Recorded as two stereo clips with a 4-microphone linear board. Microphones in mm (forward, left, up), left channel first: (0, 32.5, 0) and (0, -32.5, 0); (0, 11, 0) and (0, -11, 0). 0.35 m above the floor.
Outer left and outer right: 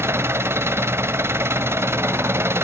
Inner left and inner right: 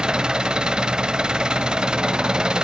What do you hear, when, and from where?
0.0 s an engine running: 40° right (ahead or behind), 0.8 m